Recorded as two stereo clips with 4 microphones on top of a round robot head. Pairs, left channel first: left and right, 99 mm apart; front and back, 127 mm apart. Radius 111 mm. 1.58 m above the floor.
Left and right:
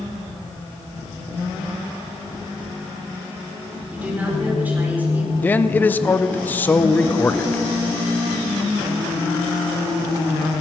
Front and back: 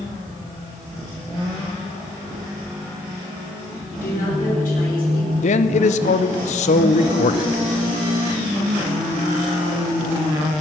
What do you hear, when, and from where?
3.9 s a woman speaking: 15° right, 5 m
5.4 s a man speaking: 20° left, 0.6 m